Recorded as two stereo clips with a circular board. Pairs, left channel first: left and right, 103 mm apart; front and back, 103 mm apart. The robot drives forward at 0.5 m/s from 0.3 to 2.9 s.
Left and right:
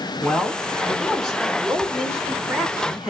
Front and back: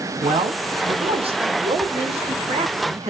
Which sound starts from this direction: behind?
A man speaking, at 0.2 s.